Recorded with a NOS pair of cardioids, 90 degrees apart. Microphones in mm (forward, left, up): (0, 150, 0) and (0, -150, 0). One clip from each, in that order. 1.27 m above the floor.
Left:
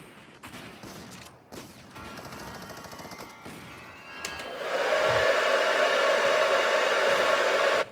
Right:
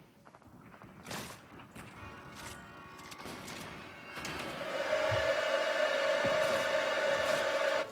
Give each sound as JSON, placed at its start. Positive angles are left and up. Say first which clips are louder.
{"t": 2.0, "sound": "a chime", "louder": "left 9 dB", "azimuth_deg": 65, "distance_m": 1.6}
{"t": 4.2, "sound": "a hair dryer", "louder": "left 6 dB", "azimuth_deg": 65, "distance_m": 0.8}